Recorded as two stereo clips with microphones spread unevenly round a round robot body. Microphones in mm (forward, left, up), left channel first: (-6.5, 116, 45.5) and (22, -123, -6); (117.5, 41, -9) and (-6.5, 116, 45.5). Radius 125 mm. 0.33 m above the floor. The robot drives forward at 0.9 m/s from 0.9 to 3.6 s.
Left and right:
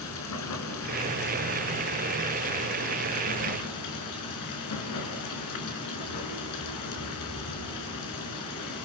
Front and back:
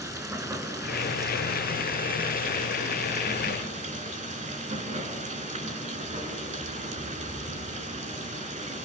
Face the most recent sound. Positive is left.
turn(degrees=110)